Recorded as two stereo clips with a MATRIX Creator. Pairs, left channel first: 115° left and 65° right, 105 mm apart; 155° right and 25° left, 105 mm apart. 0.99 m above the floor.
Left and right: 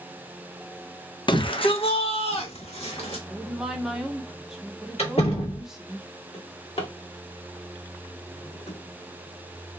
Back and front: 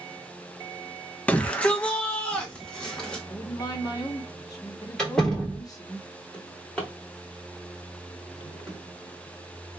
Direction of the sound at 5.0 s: 120° left.